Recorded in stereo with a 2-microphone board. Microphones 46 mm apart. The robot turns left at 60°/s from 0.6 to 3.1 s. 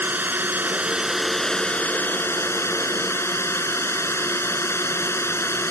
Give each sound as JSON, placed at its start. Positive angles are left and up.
{"t": 0.0, "sound": "a drone", "azimuth_deg": -135}